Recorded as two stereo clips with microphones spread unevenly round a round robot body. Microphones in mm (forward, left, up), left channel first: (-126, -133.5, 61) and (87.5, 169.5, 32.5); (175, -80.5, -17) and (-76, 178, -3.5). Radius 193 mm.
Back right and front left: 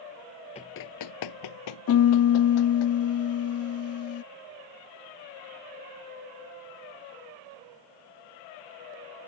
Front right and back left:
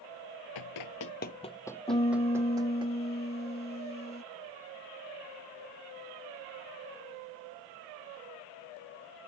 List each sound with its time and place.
0.6 s running footsteps: 55° right; by 2.9 s 150° right
1.9 s a piano: 105° right